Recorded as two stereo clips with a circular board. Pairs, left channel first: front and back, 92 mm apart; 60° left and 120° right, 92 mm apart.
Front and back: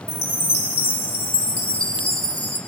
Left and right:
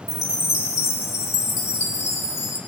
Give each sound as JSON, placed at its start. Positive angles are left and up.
{"t": 0.1, "sound": "a chime", "azimuth_deg": 5, "distance_m": 2.5}